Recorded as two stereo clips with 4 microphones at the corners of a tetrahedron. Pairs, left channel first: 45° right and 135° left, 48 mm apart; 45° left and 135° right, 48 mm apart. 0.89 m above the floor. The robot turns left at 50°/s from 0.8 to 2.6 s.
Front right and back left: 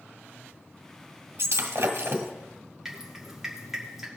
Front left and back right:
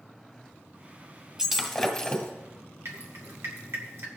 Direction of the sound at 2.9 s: 145° right.